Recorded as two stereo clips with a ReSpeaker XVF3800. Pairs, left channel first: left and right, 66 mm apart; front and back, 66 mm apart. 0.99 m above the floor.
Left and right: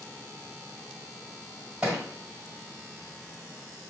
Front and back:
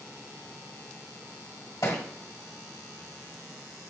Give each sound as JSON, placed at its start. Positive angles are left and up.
{"t": 1.8, "sound": "a thud", "azimuth_deg": -25, "distance_m": 1.4}